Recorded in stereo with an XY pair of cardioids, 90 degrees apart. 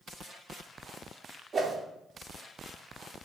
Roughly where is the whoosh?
Ahead right.